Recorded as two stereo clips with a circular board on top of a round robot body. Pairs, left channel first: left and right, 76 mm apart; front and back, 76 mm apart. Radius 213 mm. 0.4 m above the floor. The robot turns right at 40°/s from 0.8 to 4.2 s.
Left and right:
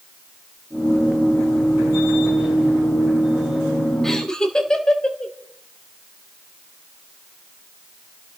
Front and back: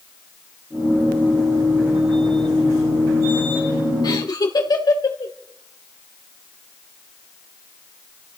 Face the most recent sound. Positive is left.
turn(degrees=10)